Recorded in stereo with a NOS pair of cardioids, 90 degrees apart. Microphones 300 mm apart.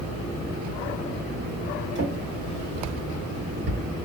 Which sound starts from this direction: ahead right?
A drawer, at 1.9 s.